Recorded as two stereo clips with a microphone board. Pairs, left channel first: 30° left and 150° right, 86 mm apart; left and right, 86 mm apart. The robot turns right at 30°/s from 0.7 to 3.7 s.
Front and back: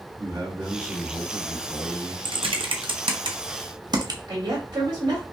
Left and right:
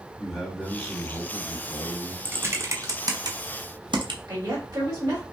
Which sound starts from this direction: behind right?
A woman speaking, at 4.3 s.